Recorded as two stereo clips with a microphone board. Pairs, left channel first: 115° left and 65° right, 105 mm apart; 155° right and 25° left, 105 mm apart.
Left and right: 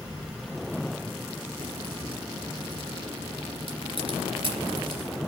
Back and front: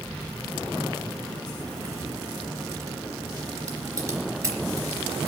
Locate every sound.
1.6 s a crack: 40° right, 3 m